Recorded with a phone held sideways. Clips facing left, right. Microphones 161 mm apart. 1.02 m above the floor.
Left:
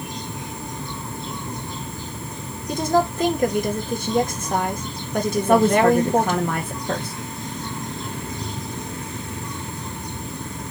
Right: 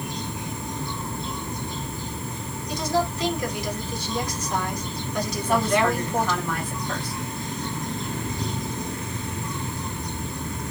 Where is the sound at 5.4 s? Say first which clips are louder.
Left 6 dB; 55° left (ahead or behind), 0.9 m.